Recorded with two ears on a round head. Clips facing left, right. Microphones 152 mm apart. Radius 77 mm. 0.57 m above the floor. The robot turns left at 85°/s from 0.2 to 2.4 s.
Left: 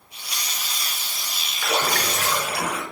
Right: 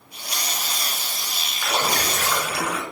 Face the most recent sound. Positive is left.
turn(degrees=-65)